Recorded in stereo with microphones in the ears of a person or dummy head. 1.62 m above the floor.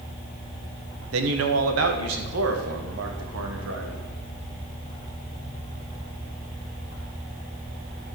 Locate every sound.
1.1 s a man speaking: 75° right (ahead or behind), 1.2 m; by 4.1 s 85° right, 3 m